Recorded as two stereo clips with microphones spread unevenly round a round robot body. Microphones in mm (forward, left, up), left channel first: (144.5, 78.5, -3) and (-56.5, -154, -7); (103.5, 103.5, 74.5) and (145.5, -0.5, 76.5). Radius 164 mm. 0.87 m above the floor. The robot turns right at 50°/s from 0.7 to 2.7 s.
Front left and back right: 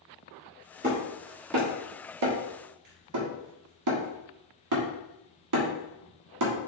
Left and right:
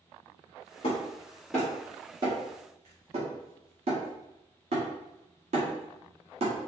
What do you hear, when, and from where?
0.8 s hammering: 160° left, 1.3 m; by 6.5 s 105° right, 1.3 m